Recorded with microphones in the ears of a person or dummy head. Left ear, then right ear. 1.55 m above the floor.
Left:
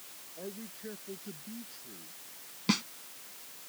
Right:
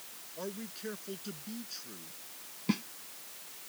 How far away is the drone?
No drone in this recording.